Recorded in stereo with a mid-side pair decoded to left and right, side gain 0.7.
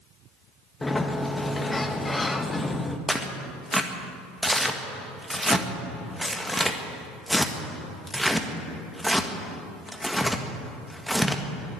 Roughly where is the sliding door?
Ahead.